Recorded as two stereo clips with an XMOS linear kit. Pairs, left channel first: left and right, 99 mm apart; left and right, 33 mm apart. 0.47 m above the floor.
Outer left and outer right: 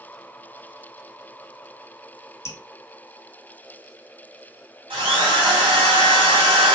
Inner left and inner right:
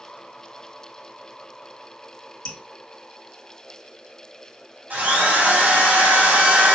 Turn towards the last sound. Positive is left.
turn(degrees=-65)  # may be behind; listen again after turning